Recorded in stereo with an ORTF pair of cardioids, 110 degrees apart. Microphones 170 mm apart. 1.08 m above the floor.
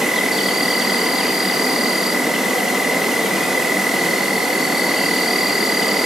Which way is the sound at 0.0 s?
Straight ahead.